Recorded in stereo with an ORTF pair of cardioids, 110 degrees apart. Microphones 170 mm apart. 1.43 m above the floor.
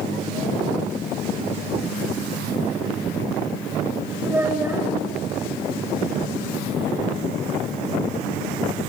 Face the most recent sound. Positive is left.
turn(degrees=-10)